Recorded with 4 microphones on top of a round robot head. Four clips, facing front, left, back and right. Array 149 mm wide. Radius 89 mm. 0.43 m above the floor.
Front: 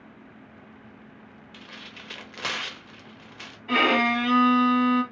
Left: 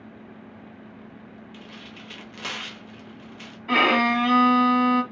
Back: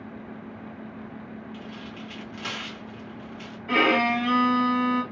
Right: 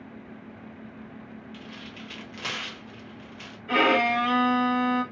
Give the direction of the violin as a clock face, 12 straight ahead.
9 o'clock.